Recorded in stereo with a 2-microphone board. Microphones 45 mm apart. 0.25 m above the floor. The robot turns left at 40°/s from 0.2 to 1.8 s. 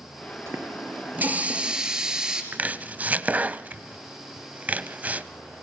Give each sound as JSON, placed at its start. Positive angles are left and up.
{"t": 0.5, "sound": "a running tap", "azimuth_deg": -110, "distance_m": 3.0}
{"t": 2.5, "sound": "chopping", "side_deg": -35, "distance_m": 0.8}